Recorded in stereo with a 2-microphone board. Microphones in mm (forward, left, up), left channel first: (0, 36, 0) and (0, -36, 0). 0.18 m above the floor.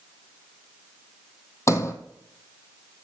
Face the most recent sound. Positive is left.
turn(degrees=40)  # may be behind; listen again after turning